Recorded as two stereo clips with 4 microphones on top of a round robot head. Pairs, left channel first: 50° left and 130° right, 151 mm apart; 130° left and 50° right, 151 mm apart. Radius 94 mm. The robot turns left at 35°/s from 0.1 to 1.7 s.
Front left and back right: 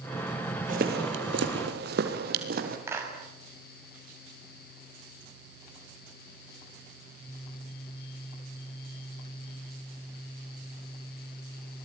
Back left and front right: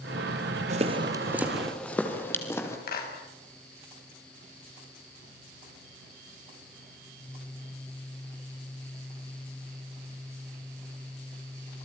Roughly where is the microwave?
I don't hear a microwave.